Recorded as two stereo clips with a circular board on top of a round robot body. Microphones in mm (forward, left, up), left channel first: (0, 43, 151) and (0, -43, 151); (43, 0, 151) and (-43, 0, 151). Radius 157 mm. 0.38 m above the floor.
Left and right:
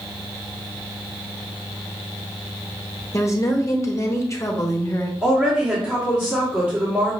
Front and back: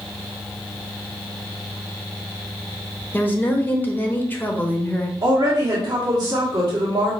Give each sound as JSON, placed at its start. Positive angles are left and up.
{"t": 3.1, "sound": "a woman speaking", "azimuth_deg": 55, "distance_m": 1.2}
{"t": 5.2, "sound": "a woman speaking", "azimuth_deg": -160, "distance_m": 1.8}